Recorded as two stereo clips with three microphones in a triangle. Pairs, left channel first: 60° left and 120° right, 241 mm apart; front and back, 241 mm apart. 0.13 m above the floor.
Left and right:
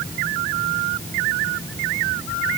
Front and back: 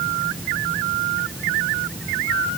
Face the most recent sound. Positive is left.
No sound to turn to.